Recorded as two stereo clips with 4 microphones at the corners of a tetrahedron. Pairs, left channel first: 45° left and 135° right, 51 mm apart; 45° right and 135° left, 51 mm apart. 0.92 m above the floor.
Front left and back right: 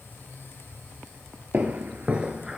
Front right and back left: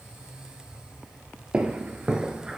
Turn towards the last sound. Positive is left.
turn(degrees=175)